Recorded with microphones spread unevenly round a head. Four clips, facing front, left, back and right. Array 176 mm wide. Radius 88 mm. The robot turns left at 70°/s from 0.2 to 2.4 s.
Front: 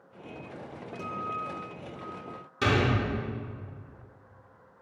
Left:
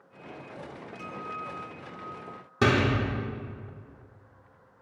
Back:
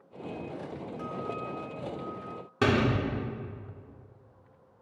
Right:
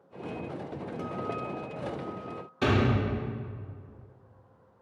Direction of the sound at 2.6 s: 115° left.